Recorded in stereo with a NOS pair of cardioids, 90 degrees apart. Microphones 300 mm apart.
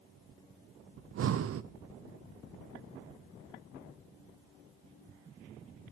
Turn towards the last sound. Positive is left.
turn(degrees=-50)